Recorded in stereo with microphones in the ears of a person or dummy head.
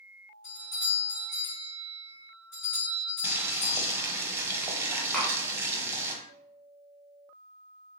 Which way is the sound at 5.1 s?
5° left (ahead or behind).